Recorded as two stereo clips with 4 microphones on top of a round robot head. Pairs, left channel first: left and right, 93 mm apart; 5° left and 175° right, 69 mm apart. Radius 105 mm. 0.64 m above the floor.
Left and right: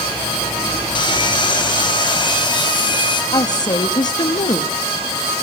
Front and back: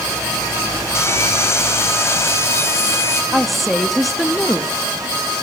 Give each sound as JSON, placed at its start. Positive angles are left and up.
{"t": 0.9, "sound": "sawing", "azimuth_deg": 55, "distance_m": 4.5}
{"t": 3.3, "sound": "a woman speaking", "azimuth_deg": 95, "distance_m": 1.6}